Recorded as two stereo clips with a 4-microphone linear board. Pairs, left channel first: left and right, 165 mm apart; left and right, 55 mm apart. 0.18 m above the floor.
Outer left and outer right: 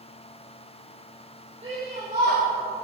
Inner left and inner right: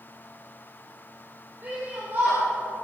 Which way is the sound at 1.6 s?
40° right (ahead or behind).